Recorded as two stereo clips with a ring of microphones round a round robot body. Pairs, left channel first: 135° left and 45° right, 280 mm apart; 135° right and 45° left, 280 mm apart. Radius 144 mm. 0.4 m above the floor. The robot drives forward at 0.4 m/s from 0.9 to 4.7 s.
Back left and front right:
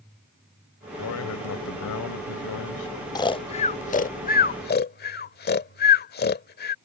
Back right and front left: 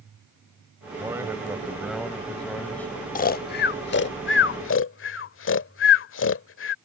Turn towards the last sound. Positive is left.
turn(degrees=-175)